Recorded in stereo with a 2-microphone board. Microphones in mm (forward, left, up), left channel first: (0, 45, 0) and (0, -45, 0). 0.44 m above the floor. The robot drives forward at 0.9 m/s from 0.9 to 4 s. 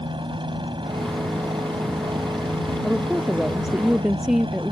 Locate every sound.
0.0 s a helicopter: 65° right (ahead or behind)
2.8 s a woman speaking: 5° right (ahead or behind)